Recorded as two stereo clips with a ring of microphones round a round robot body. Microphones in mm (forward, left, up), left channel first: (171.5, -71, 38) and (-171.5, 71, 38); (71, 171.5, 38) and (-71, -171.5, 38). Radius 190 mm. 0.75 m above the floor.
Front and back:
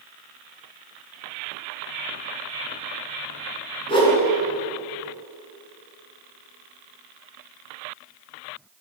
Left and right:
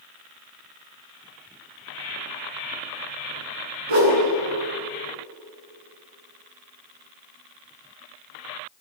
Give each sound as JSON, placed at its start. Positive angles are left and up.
{"t": 3.9, "sound": "a whoosh", "azimuth_deg": -100, "distance_m": 9.5}